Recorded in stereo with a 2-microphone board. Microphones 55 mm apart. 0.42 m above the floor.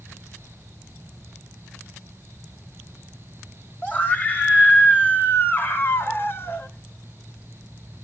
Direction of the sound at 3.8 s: 25° left (ahead or behind).